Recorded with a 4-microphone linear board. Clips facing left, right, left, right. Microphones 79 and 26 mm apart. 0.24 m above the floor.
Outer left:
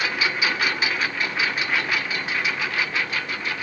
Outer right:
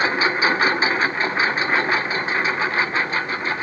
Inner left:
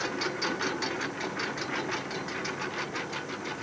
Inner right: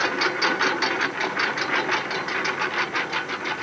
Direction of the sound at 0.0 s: 35° right (ahead or behind).